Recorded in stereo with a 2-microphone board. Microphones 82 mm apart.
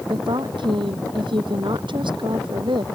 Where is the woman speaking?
75° right (ahead or behind).